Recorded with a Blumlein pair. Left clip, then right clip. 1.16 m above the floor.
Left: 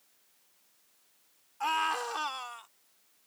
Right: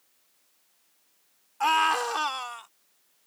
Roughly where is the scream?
Right.